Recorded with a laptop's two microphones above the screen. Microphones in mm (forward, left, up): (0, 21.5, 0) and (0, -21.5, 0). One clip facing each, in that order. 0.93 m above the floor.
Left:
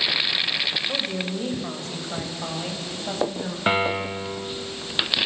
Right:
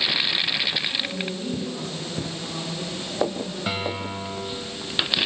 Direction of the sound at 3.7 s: 35° left (ahead or behind).